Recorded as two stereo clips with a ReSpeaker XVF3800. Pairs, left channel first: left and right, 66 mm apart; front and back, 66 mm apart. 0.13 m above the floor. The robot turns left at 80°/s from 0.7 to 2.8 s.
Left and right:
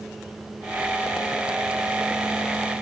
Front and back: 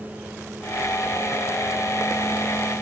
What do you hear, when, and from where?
Only background noise.